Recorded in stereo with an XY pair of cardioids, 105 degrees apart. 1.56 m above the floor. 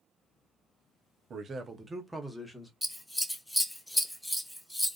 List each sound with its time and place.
1.3 s a man speaking: 50° right, 0.7 m; by 2.7 s 10° left, 1.1 m
2.8 s scissors: 5° left, 0.5 m